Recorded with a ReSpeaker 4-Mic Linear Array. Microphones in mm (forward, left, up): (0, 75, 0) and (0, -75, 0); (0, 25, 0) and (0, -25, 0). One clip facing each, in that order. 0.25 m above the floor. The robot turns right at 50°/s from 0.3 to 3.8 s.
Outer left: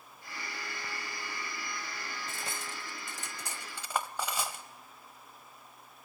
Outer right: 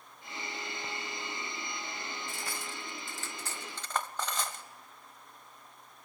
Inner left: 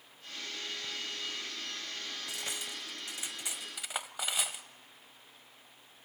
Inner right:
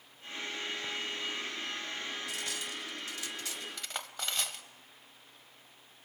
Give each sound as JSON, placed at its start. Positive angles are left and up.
{"t": 2.3, "sound": "cutlery clinking", "side_deg": 20, "distance_m": 0.7}